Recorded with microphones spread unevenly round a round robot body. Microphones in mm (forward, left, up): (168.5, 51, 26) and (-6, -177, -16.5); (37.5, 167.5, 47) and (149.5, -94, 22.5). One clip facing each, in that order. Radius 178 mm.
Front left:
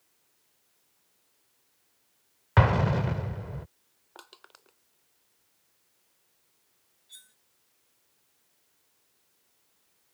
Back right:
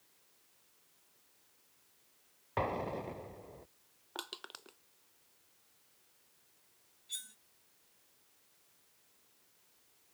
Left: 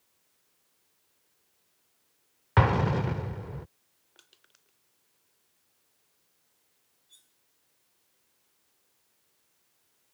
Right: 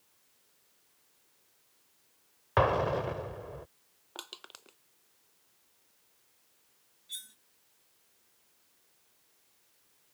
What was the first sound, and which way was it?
An explosion, 55° left.